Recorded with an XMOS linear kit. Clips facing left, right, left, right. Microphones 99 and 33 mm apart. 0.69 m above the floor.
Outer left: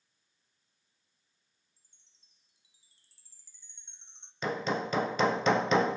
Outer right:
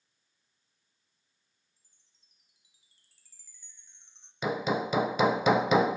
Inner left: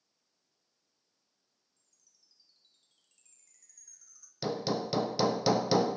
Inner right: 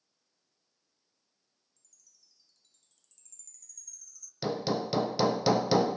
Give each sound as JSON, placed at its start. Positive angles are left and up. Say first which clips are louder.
{"t": 1.8, "sound": "a chime", "louder": "even, inner right 5 dB", "side_deg": 30, "distance_m": 2.0}
{"t": 4.4, "sound": "hammering", "louder": "outer right 2 dB, inner right 2 dB", "side_deg": -10, "distance_m": 0.9}